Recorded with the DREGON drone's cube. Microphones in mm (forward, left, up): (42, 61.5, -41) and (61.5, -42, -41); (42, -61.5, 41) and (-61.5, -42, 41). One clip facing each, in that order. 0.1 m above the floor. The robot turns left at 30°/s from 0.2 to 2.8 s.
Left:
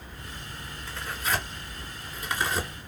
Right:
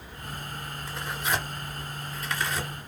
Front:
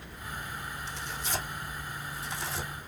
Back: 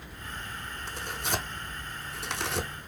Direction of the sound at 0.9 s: 150° right.